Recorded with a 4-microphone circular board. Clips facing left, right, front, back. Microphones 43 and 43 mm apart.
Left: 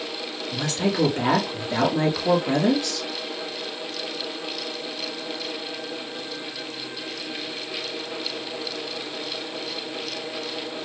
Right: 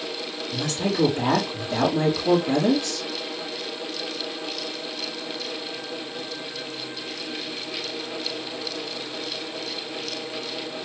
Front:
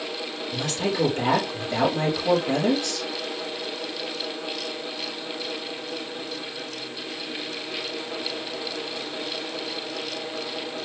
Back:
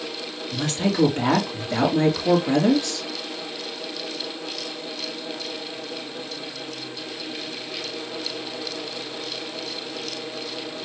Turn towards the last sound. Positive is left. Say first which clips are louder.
# left 1 dB, back 3 dB
turn(degrees=125)